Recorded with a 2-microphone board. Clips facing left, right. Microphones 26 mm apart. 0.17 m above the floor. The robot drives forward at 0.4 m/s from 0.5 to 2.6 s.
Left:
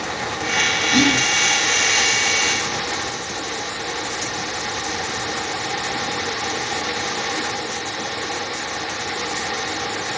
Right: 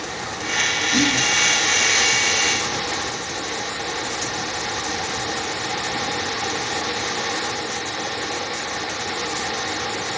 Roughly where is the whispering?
Centre.